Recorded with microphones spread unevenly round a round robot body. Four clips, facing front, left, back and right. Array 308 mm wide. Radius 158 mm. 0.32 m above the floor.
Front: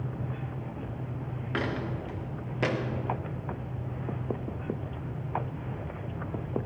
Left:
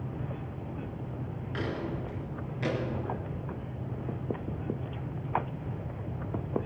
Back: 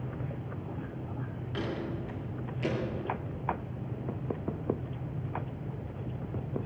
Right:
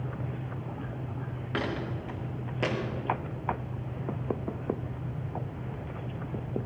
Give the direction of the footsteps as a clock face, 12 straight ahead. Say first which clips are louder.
Right 2 dB, front 3 dB; 2 o'clock.